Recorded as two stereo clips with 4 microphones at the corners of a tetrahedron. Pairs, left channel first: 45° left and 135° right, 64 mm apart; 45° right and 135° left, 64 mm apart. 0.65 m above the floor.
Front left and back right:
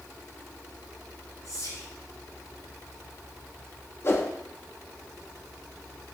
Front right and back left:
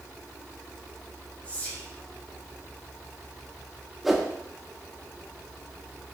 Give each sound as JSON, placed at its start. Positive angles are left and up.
{"t": 1.4, "sound": "whispering", "azimuth_deg": 20, "distance_m": 3.5}
{"t": 4.0, "sound": "a whoosh", "azimuth_deg": 50, "distance_m": 1.0}